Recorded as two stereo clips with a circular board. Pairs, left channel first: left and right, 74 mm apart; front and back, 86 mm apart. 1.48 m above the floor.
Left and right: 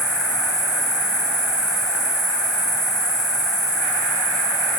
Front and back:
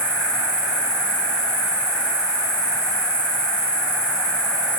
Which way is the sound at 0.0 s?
80° left.